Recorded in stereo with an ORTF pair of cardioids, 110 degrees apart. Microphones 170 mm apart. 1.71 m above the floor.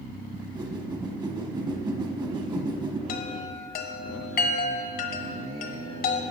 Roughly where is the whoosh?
Ahead right.